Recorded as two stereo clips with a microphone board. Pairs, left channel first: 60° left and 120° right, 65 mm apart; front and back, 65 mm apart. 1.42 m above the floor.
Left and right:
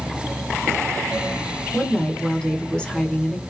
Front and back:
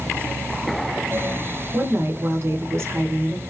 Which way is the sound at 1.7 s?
135° left.